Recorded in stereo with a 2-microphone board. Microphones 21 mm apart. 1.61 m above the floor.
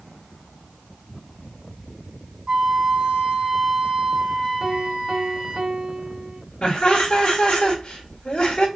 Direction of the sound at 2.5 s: 60° right (ahead or behind).